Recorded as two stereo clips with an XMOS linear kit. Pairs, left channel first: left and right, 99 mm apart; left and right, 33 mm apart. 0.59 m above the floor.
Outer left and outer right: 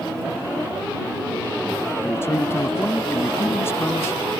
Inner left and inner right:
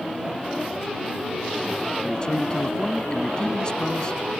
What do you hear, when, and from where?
2.0 s a man speaking: 25° left (ahead or behind)